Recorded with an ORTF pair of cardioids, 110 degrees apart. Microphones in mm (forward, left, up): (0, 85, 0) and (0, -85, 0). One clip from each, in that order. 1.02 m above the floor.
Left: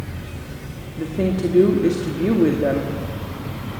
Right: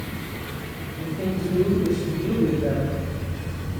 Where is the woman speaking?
60° left, 1.7 m.